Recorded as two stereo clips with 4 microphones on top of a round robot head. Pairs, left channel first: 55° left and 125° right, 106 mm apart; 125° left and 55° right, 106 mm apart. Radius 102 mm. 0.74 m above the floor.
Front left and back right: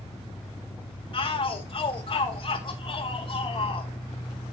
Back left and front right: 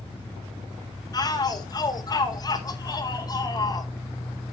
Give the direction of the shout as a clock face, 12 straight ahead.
9 o'clock.